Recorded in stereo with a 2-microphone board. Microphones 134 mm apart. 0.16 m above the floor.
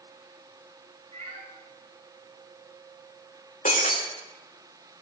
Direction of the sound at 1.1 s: 50° right (ahead or behind).